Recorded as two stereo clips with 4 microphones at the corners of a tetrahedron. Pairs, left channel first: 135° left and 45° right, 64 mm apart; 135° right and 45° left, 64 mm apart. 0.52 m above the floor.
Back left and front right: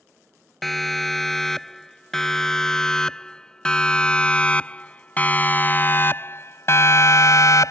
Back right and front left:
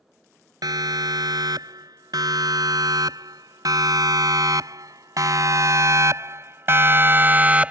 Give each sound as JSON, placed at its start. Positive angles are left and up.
{"t": 0.6, "sound": "a siren", "azimuth_deg": 50}